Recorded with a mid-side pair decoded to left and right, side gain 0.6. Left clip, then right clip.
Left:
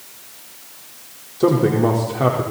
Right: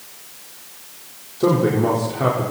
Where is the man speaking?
15° left, 4.5 m.